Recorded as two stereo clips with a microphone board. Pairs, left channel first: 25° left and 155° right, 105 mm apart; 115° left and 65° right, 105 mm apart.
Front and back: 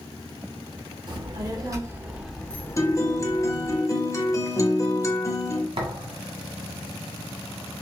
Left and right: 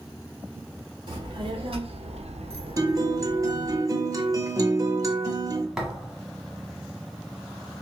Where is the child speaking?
115° right, 1.5 m; by 3.8 s 5° left, 1.3 m.